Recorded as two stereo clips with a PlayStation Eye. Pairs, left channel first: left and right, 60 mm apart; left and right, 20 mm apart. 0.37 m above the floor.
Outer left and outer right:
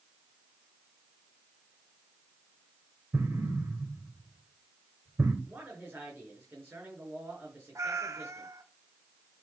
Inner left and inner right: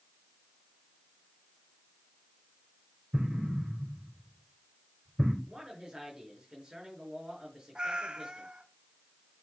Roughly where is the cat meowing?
Right.